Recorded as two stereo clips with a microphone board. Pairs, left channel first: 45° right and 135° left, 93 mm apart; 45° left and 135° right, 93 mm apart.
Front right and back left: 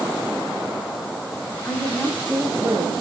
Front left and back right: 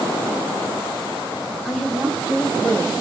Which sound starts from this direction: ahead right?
A woman speaking, at 1.6 s.